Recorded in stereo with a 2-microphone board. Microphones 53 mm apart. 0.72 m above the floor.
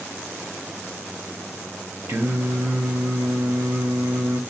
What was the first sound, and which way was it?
Singing, 55° right (ahead or behind).